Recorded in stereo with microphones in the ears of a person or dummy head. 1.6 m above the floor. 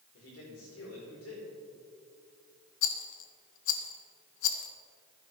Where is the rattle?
75° left (ahead or behind), 1.1 m.